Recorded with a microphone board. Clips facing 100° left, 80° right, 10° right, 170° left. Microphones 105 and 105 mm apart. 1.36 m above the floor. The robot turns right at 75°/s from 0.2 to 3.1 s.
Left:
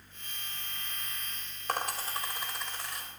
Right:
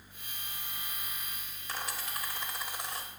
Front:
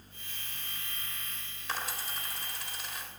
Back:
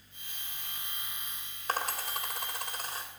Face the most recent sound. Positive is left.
turn(degrees=-125)